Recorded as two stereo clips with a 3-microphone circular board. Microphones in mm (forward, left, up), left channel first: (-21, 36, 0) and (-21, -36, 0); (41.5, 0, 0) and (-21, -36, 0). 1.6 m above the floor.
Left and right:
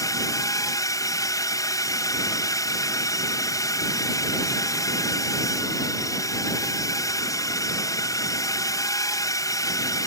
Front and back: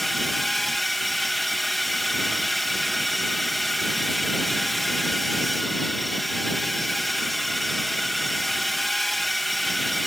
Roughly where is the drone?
Behind left.